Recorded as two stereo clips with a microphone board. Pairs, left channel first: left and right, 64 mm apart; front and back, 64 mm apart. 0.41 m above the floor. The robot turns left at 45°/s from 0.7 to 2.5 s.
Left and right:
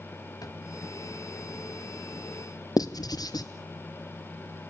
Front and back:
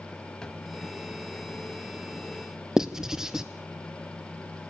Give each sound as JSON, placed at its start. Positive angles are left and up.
{"t": 0.4, "sound": "a drawer", "azimuth_deg": 75, "distance_m": 1.6}
{"t": 2.8, "sound": "writing", "azimuth_deg": 100, "distance_m": 1.3}